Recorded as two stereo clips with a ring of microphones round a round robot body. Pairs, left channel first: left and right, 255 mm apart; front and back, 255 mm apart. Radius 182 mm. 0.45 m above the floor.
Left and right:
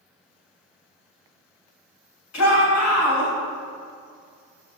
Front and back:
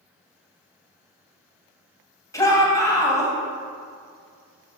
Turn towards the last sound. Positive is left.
turn(degrees=75)